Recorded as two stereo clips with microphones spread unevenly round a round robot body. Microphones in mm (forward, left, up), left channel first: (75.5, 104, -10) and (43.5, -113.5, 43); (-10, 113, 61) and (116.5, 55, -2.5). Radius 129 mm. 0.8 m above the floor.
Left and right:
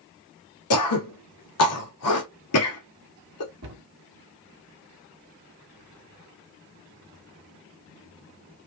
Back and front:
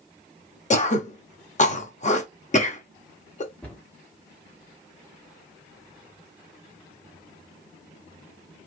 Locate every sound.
0.7 s throat clearing: 110° left, 1.3 m
3.6 s a cupboard door: 105° right, 1.6 m